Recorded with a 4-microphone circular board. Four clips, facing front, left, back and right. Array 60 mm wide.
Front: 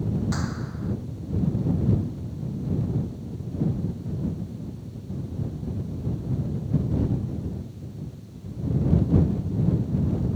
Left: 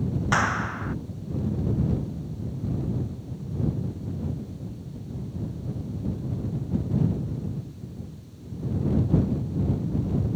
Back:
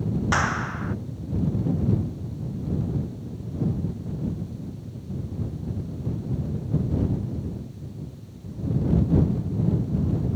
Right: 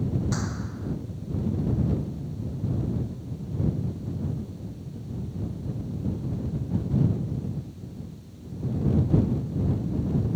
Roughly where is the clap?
Behind left.